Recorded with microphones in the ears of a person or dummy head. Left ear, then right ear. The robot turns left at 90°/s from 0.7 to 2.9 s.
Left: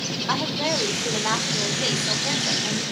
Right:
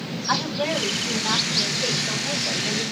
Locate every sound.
0.3 s a woman speaking: 170° left, 3.5 m; by 2.8 s 20° right, 3.5 m